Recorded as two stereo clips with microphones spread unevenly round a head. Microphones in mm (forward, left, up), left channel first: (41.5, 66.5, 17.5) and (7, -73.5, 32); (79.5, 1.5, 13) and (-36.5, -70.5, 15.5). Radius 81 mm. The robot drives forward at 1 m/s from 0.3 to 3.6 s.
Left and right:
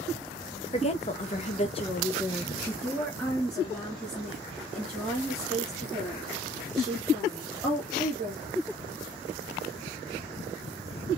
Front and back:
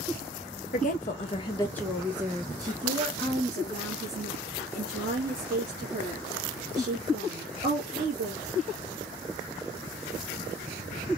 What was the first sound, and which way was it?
A woman speaking, 40° left.